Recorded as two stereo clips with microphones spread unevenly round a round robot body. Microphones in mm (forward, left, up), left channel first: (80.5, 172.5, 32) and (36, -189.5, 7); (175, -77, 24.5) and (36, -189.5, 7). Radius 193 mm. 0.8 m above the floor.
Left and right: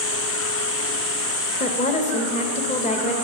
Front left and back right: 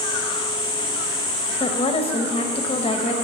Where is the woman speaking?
30° left, 0.8 m.